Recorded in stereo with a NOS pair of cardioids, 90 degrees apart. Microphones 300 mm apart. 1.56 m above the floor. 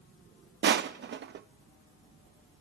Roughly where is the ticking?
I don't hear ticking.